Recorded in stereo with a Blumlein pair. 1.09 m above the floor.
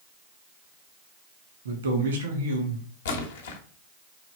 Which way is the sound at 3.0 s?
60° left.